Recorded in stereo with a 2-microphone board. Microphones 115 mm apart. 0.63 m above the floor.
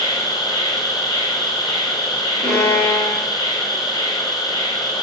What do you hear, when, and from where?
0.0 s an insect: 35° left (ahead or behind), 1.2 m
2.4 s a violin: 80° right, 2 m